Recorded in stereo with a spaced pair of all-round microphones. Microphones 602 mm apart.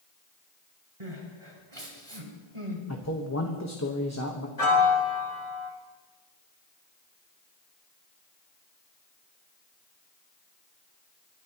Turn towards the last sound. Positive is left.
turn(degrees=70)  # may be behind; listen again after turning